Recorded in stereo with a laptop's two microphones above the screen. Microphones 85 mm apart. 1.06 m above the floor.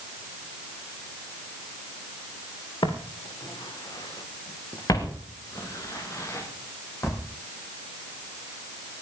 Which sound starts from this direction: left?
Footsteps, at 2.8 s.